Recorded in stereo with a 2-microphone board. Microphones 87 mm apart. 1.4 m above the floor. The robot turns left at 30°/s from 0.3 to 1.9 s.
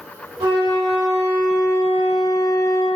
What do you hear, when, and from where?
0.4 s a flute: 105° right, 1.9 m; by 2.9 s 150° right, 1.9 m